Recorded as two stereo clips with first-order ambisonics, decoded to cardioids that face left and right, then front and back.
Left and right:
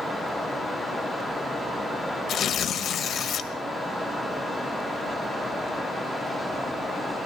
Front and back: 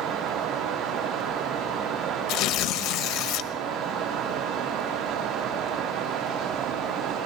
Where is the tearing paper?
35° left, 1.1 m.